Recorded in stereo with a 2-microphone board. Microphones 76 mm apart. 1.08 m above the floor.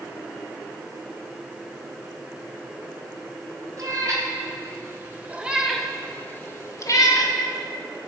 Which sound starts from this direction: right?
A cat meowing, at 3.8 s.